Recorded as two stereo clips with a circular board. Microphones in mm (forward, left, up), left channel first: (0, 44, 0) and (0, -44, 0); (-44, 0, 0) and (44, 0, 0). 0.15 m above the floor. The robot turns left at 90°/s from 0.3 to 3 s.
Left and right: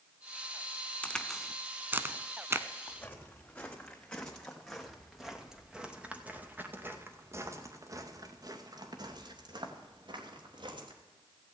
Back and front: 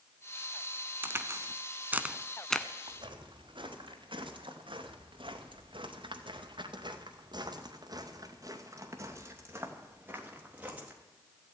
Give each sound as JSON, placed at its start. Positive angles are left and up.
{"t": 1.0, "sound": "a crack", "azimuth_deg": 35, "distance_m": 0.6}
{"t": 2.9, "sound": "footsteps", "azimuth_deg": 35, "distance_m": 3.0}